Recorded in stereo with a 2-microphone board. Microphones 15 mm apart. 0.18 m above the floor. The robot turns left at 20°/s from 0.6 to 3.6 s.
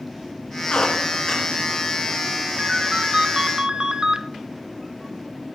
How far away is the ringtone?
About 0.5 m.